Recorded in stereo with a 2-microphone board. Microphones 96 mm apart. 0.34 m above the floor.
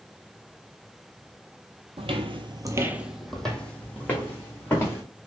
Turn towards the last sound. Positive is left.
turn(degrees=25)  # may be behind; listen again after turning